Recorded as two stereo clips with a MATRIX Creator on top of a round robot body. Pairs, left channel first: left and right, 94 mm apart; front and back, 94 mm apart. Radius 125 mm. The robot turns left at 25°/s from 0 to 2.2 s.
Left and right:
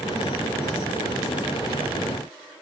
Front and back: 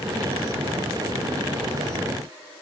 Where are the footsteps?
No footsteps in this recording.